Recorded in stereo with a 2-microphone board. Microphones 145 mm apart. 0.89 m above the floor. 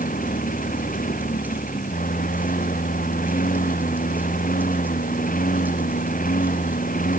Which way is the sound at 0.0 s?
70° left (ahead or behind).